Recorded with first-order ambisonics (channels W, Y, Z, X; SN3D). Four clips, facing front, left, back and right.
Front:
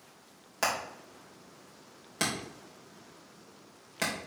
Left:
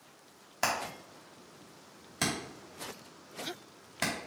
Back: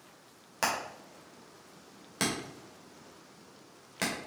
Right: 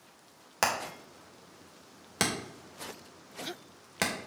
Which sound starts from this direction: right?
Hammering, at 0.6 s.